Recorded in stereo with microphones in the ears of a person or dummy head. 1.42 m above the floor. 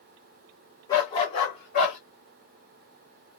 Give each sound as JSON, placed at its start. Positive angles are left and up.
{"t": 0.9, "sound": "a dog barking", "side_deg": 20, "distance_m": 1.4}